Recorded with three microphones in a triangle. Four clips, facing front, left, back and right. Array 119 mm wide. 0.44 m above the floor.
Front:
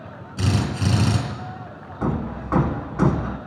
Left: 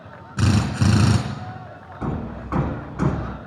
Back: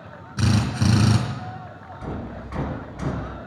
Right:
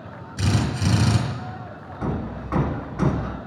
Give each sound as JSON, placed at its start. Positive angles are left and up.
{"t": 0.4, "sound": "a drill", "azimuth_deg": 110, "distance_m": 4.0}
{"t": 2.0, "sound": "hammering", "azimuth_deg": 10, "distance_m": 1.4}